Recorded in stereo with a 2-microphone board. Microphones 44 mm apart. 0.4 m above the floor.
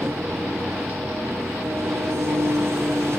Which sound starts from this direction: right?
An engine running, at 0.0 s.